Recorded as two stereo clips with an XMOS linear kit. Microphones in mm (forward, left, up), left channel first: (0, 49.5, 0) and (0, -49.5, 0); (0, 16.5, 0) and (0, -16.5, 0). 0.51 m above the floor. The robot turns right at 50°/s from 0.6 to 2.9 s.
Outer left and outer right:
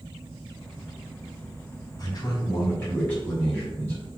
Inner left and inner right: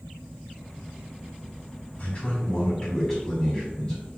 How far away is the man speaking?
About 1.9 m.